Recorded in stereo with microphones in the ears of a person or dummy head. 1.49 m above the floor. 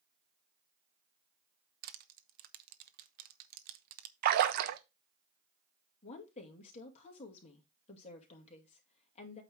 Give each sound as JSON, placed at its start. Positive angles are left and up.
{"t": 1.8, "sound": "crushing", "side_deg": -50, "distance_m": 0.9}
{"t": 4.2, "sound": "a splash", "side_deg": -60, "distance_m": 0.7}
{"t": 6.0, "sound": "a woman speaking", "side_deg": 40, "distance_m": 2.0}